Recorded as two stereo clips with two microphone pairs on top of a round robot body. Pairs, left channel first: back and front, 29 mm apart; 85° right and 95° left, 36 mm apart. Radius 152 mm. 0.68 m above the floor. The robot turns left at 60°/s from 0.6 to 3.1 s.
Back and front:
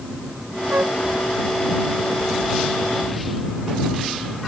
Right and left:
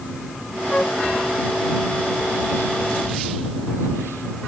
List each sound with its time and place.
0.7 s a flute: 10° right; by 1.0 s 30° right